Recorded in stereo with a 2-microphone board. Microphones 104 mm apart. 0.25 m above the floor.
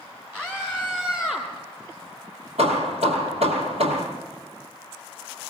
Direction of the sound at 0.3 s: 20° right (ahead or behind).